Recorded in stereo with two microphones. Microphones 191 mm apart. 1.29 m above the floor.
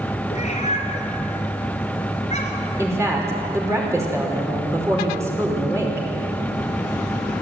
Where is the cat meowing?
35° left (ahead or behind), 3 m.